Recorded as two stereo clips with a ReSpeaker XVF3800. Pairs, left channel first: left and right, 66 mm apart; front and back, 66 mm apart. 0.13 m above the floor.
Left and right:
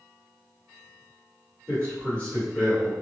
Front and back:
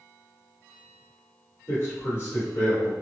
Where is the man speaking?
25° left, 1.8 m.